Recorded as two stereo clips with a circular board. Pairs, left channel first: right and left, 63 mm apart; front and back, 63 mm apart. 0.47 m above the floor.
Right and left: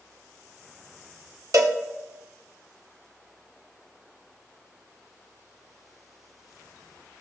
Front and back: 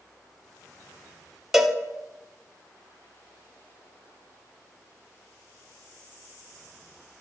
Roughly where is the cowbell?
Left.